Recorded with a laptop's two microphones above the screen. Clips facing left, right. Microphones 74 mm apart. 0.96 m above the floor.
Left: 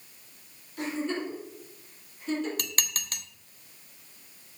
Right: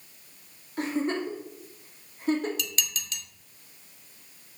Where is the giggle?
40° right (ahead or behind), 2.5 m.